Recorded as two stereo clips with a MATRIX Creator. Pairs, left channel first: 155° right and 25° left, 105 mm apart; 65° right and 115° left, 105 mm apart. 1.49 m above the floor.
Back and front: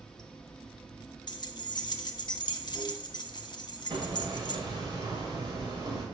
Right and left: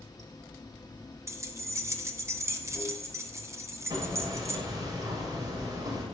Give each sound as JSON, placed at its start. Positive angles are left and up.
{"t": 0.0, "sound": "running water", "azimuth_deg": -80, "distance_m": 1.1}
{"t": 1.3, "sound": "keys jangling", "azimuth_deg": 170, "distance_m": 0.8}
{"t": 3.9, "sound": "hammering", "azimuth_deg": 60, "distance_m": 2.5}